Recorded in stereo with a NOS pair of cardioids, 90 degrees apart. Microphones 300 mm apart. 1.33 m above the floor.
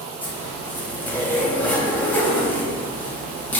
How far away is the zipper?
About 1.0 m.